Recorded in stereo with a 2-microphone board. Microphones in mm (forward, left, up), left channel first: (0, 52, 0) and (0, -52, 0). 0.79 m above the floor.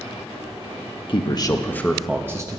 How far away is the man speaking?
About 0.8 m.